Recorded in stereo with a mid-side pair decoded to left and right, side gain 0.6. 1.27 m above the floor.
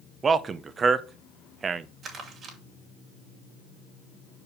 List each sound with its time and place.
0.2 s a man speaking: 35° right, 0.8 m
2.0 s crumpling: 50° right, 2.5 m